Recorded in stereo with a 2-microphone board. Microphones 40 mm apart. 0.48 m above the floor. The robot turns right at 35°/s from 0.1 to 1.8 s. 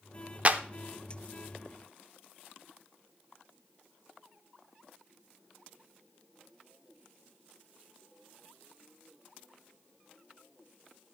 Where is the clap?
35° right (ahead or behind), 0.7 m.